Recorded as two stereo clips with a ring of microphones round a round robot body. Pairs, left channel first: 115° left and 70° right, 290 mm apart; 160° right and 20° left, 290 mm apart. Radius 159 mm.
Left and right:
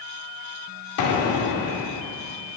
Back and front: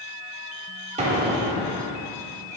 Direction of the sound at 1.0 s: 90° left.